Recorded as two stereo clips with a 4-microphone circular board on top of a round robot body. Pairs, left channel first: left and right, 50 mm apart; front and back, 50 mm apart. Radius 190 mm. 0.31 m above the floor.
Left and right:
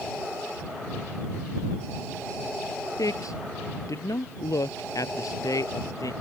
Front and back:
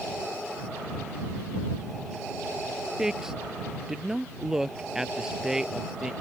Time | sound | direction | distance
3.0 | a man speaking | 100° left | ?